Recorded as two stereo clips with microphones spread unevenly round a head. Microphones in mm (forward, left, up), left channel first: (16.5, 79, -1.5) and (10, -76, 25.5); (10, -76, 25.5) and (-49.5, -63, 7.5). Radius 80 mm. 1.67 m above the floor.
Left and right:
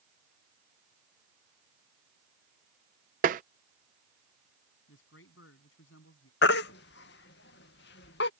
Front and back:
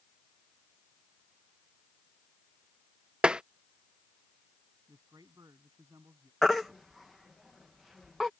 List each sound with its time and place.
3.2 s tapping: 105° right
4.9 s a man speaking: 100° left
6.4 s a baby crying: 70° left